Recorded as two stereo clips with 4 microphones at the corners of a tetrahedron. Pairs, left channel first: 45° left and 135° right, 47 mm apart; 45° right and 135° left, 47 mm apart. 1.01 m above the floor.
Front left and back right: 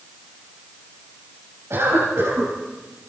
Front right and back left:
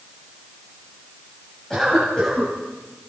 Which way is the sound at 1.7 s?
125° right.